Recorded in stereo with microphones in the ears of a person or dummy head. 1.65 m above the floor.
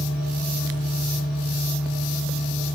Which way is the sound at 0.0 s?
5° right (ahead or behind).